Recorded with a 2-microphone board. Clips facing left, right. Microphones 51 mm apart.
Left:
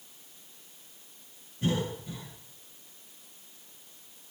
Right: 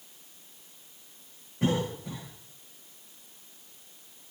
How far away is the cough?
About 2 m.